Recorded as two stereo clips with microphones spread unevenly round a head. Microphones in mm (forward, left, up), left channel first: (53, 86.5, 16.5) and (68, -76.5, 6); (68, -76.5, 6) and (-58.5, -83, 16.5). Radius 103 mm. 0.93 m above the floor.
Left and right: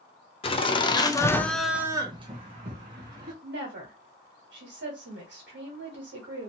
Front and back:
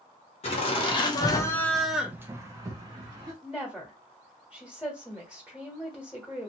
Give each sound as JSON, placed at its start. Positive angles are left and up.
{"t": 0.4, "sound": "laughter", "azimuth_deg": 40, "distance_m": 0.9}
{"t": 3.4, "sound": "a woman speaking", "azimuth_deg": -85, "distance_m": 1.2}